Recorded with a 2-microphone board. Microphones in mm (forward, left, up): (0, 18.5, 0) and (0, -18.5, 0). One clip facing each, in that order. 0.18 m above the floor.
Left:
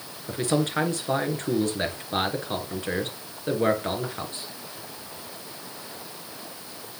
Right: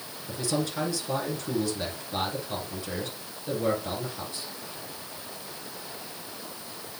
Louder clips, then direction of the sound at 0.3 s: Left 5 dB; 50° left (ahead or behind).